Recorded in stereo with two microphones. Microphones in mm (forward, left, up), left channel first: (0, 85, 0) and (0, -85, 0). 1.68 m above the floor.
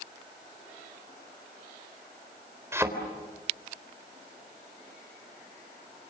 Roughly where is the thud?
Centre.